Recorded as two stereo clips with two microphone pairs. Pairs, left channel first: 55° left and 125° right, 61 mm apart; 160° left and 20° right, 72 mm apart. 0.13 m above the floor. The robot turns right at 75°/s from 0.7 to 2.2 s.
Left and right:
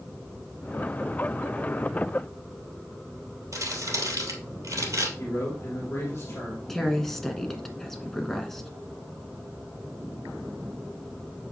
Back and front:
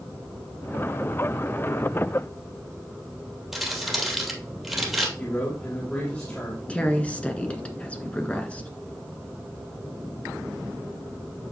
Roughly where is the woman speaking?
Behind left.